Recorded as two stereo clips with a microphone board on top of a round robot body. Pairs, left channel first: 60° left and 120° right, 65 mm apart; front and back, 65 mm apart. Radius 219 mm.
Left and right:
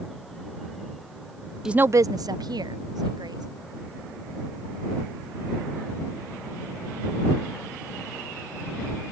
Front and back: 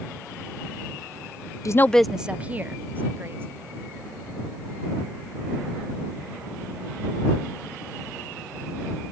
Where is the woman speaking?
40° right; by 3.5 s 125° right.